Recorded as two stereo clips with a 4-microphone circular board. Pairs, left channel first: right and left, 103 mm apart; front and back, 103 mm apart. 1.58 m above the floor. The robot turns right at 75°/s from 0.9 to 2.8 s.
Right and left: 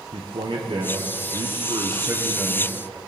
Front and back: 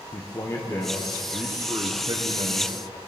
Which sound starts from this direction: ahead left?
A man speaking, at 0.1 s.